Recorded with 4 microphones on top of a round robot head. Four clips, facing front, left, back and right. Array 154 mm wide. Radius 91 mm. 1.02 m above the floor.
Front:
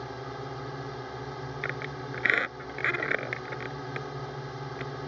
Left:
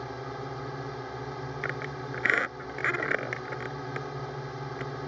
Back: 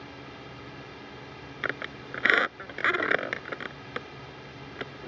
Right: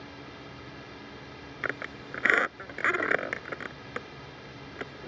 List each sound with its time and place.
0.0 s a drone: 55° left
1.6 s a squeak: 150° right